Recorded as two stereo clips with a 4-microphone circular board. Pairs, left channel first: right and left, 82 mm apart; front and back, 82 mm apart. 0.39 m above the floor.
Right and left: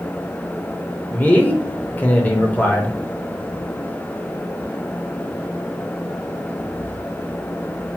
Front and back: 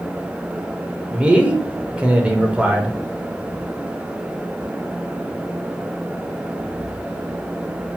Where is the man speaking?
125° right, 0.9 m.